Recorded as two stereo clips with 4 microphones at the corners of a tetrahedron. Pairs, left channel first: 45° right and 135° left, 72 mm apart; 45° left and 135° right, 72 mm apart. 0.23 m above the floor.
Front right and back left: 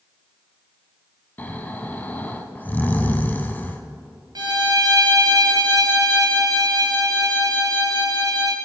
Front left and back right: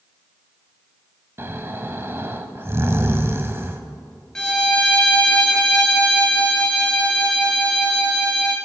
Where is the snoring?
95° right, 0.9 m.